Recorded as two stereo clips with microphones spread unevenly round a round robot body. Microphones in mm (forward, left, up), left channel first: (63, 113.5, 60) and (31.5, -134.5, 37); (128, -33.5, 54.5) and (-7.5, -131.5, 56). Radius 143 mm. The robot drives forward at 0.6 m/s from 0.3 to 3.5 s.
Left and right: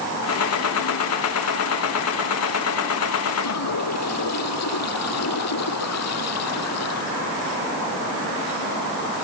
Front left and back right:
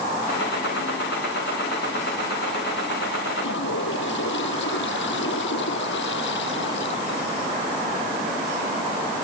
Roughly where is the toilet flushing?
Ahead left.